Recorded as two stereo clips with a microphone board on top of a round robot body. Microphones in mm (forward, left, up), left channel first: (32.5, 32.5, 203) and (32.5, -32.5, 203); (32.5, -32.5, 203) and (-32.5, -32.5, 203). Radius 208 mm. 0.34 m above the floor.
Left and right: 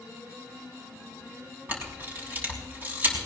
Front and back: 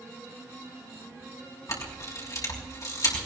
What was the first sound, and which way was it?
A camera shutter, 30° right.